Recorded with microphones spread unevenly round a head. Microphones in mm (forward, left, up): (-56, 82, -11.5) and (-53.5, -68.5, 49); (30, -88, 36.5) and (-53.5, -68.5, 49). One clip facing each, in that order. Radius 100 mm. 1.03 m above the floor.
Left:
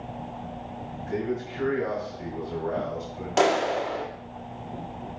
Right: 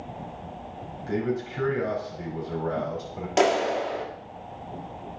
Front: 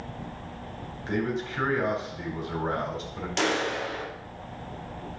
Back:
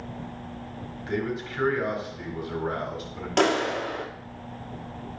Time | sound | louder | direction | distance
1.1 | a man speaking | right 2 dB, front 1 dB | 75° right | 4.5 m
3.4 | a clap | even, back 4 dB | 160° right | 1.9 m